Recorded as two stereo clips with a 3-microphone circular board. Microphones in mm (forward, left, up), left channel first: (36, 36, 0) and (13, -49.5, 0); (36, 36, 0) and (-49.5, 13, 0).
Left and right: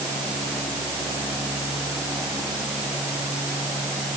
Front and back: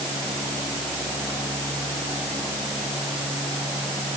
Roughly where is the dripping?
I don't hear dripping.